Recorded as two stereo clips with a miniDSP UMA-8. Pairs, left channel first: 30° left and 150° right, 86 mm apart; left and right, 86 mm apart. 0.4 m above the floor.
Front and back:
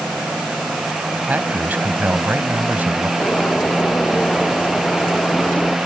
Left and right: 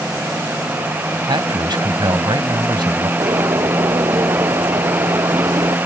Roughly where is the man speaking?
Right.